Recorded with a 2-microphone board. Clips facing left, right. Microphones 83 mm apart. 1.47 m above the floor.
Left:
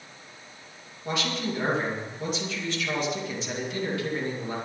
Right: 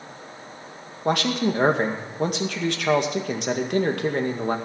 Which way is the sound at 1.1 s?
65° right (ahead or behind).